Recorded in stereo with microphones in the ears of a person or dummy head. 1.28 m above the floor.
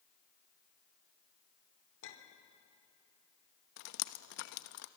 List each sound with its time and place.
2.0 s a clink: 75° left (ahead or behind), 2.5 m
3.8 s dripping: 60° left (ahead or behind), 0.8 m